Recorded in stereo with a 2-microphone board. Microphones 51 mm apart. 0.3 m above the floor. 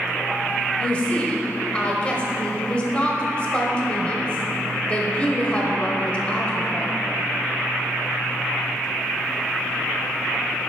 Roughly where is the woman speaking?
Left.